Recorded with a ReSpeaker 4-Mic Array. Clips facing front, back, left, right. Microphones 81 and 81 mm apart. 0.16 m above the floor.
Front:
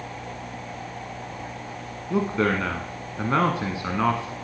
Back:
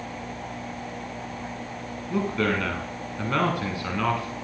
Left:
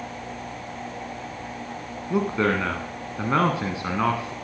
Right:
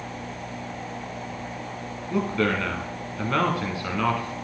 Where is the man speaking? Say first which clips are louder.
Front 2 dB, left 2 dB; 45° left, 1.2 m.